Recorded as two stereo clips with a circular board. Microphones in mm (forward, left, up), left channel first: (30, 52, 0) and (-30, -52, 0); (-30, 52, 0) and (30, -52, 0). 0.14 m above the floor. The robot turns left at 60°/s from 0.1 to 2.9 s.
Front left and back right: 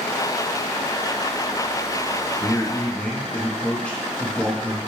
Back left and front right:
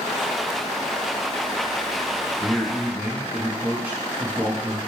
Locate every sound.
2.4 s a man speaking: 30° left, 1.1 m; by 4.8 s straight ahead, 1.1 m